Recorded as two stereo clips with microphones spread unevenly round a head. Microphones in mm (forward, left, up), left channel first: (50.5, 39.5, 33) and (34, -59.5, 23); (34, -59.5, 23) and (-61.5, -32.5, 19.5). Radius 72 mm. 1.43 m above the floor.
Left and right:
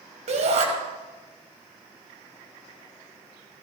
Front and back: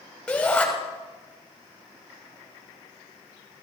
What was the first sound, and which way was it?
A shout, 95° right.